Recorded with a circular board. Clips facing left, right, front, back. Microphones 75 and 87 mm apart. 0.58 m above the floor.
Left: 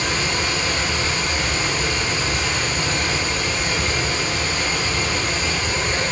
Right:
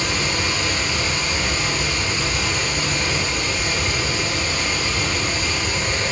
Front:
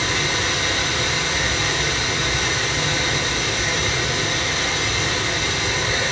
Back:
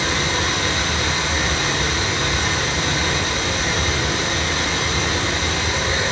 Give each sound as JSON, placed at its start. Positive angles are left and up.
{"t": 0.0, "sound": "running water", "azimuth_deg": 140, "distance_m": 0.7}